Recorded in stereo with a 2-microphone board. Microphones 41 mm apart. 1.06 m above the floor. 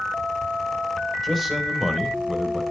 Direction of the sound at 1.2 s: 5° left (ahead or behind).